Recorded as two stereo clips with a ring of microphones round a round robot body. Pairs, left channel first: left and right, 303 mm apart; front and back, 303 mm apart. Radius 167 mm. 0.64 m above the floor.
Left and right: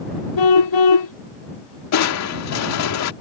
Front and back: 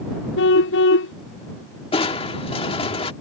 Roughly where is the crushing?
Left.